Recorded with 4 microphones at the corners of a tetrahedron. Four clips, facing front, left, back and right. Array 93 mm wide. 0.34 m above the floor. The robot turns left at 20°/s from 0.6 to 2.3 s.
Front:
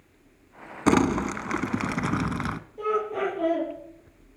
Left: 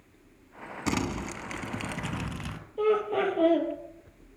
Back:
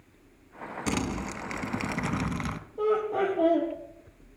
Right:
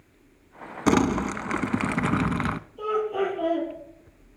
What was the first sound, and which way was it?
Crumpling, 40° right.